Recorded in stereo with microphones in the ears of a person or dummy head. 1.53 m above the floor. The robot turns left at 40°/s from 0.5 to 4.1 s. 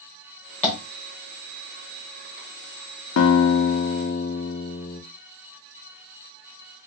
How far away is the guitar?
About 0.6 m.